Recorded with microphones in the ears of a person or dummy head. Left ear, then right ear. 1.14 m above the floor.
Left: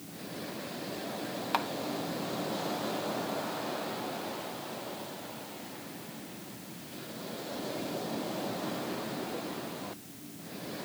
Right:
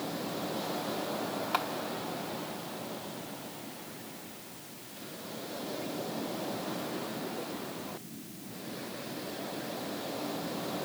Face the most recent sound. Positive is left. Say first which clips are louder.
# left 1 dB
turn(degrees=20)  # may be behind; listen again after turning